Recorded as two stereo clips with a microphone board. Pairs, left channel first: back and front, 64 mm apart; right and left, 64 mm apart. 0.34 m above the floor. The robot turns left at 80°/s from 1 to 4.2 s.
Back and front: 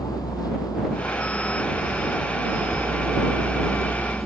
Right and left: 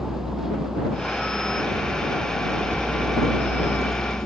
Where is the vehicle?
175° left; by 4.3 s 80° right.